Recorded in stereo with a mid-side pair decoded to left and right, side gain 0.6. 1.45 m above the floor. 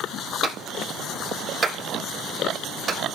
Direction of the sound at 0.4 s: 35° right.